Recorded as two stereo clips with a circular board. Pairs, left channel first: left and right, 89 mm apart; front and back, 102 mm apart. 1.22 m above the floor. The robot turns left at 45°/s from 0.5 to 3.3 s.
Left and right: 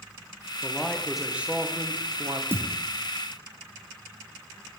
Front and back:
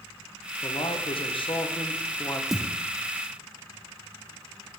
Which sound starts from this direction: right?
A thud, at 2.5 s.